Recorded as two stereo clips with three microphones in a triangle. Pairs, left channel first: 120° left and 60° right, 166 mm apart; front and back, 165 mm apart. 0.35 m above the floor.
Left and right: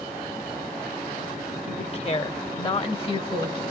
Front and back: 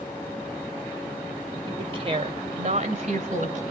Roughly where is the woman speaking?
Behind left.